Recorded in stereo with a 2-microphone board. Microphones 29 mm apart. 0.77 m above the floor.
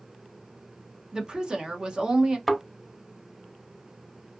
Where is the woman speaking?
30° right (ahead or behind), 0.7 m.